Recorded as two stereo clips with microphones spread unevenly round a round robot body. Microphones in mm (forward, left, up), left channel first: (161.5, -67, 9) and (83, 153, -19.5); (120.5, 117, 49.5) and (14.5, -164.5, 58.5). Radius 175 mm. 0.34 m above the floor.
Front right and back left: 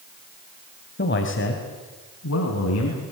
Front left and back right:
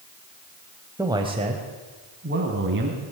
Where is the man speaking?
30° right, 2.5 m; by 3.1 s 65° right, 4.5 m.